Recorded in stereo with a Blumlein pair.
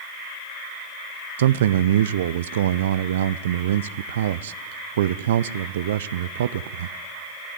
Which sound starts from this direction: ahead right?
A man speaking, at 1.4 s.